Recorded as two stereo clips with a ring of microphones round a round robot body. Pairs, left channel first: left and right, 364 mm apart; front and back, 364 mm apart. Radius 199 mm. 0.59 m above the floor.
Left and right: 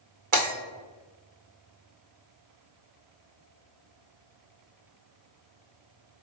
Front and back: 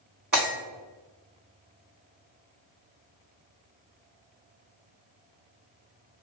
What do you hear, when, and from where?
0.3 s breaking glass: 115° right, 1.9 m